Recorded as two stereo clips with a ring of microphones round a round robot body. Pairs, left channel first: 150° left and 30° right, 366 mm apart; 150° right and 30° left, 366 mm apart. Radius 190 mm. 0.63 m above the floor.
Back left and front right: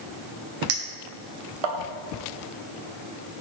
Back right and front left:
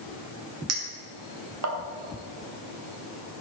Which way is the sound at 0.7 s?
20° right.